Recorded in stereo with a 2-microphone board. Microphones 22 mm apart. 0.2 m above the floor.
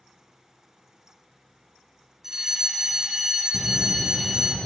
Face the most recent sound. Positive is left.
turn(degrees=10)  # may be behind; listen again after turning